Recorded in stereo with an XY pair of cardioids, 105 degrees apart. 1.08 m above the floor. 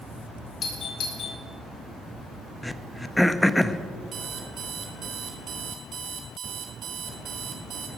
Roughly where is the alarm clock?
Ahead right.